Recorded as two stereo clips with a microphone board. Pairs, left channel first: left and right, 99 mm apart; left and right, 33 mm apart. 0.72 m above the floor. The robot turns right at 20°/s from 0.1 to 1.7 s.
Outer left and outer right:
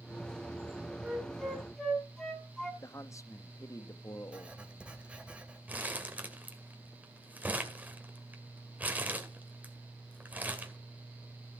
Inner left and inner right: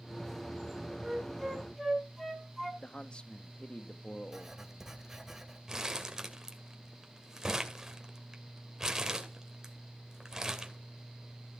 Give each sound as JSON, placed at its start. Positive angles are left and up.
{"t": 1.0, "sound": "a flute", "side_deg": -10, "distance_m": 3.5}
{"t": 2.8, "sound": "a man speaking", "side_deg": 30, "distance_m": 0.9}
{"t": 4.3, "sound": "writing", "side_deg": -10, "distance_m": 2.0}
{"t": 5.7, "sound": "crumpling", "side_deg": -15, "distance_m": 2.0}